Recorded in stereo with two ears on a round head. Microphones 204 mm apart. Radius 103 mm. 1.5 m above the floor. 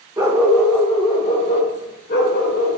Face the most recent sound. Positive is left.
turn(degrees=55)  # may be behind; listen again after turning